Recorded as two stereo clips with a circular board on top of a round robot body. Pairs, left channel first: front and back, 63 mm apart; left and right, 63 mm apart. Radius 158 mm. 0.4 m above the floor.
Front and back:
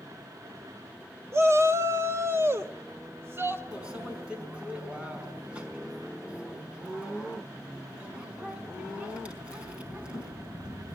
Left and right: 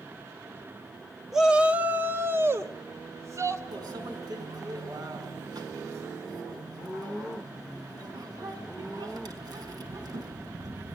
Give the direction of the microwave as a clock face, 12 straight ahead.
4 o'clock.